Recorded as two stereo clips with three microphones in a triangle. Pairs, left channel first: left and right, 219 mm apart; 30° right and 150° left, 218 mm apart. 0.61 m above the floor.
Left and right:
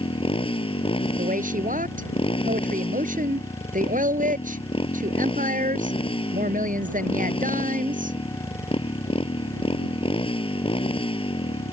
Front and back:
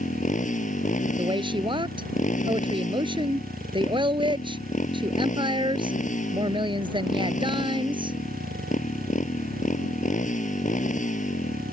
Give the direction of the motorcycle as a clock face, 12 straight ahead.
11 o'clock.